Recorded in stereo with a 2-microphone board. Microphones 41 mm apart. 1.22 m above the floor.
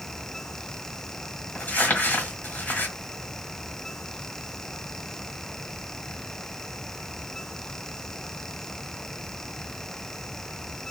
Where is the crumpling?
45° left (ahead or behind), 1.3 m.